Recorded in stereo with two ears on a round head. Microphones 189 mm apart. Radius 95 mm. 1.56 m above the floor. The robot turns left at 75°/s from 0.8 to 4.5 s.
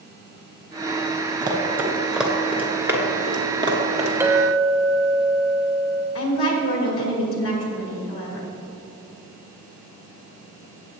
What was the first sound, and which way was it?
Running footsteps, 20° right (ahead or behind).